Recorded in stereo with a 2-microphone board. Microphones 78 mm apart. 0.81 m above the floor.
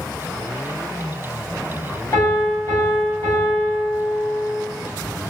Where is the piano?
40° left (ahead or behind), 1.5 m.